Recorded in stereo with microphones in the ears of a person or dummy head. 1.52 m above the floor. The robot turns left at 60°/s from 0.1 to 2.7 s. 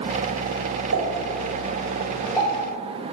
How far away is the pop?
About 4.5 m.